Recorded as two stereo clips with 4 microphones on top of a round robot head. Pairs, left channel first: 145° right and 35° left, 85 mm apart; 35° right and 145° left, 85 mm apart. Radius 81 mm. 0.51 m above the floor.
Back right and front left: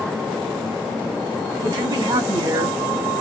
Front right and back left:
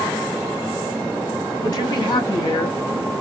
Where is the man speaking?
Straight ahead, 3 m; by 2.8 s 5° right, 4 m.